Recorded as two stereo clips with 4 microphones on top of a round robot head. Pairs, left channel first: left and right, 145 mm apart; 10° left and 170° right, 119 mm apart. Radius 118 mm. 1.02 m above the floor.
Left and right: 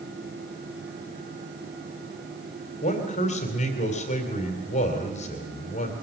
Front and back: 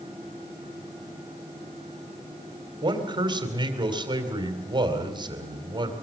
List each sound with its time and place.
2.8 s a man speaking: 140° left, 3 m